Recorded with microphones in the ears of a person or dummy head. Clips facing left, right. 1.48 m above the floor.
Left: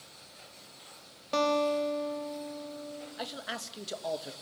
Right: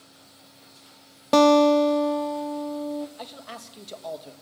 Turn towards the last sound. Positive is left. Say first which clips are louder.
# left 1 dB
turn(degrees=10)  # may be behind; listen again after turning